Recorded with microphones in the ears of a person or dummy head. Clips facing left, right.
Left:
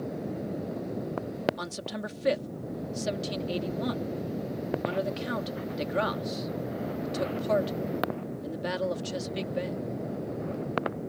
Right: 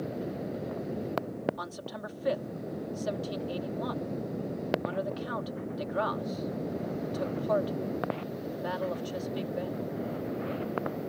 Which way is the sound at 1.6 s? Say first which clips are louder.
Left 3 dB; 25° left (ahead or behind).